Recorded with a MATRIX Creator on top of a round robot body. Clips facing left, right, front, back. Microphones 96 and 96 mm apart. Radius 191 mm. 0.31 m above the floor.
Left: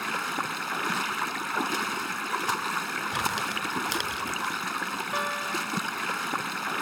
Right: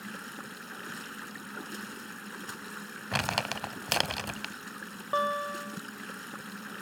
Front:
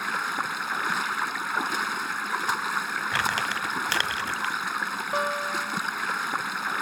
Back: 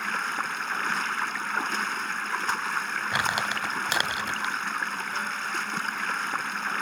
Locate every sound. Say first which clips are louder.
0.0 s running water: left 12 dB, front 1 dB; 80° left
3.1 s crumpling: even, even; 105° right
5.1 s a guitar: right 3 dB, front 8 dB; 25° right